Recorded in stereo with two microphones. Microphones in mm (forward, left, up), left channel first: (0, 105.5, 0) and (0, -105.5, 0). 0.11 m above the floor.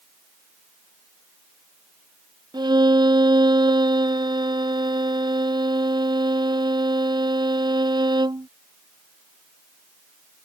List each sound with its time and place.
2.5 s a violin: 20° right (ahead or behind)